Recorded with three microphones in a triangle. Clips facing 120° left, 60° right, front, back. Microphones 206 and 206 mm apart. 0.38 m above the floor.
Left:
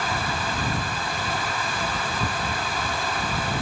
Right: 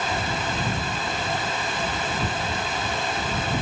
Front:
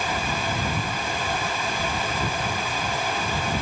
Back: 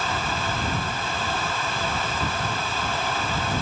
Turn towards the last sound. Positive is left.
No sound to turn to.